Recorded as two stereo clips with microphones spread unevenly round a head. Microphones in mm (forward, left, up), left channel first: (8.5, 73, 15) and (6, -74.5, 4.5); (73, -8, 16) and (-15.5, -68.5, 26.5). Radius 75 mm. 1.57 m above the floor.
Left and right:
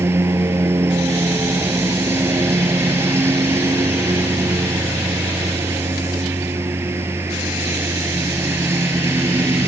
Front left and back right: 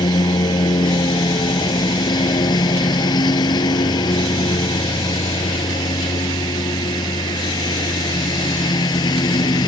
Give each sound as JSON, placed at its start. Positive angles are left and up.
{"t": 0.0, "sound": "a lawn mower", "azimuth_deg": -15}